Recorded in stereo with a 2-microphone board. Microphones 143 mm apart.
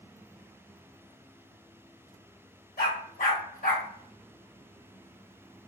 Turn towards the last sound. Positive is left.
turn(degrees=75)  # may be behind; listen again after turning